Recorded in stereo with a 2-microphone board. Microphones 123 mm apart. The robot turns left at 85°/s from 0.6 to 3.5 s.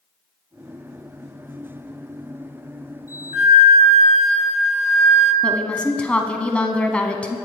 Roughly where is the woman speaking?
Centre.